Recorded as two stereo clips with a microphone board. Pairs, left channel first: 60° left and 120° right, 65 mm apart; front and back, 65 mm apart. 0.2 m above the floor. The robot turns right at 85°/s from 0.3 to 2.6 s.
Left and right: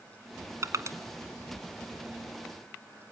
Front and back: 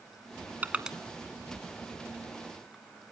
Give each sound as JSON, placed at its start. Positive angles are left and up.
{"t": 0.6, "sound": "crushing", "azimuth_deg": -125, "distance_m": 1.2}